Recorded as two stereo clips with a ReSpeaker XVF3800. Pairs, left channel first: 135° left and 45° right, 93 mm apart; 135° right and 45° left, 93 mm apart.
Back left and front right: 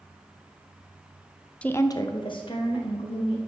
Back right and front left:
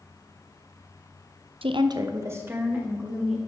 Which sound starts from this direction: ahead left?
A woman speaking, at 1.6 s.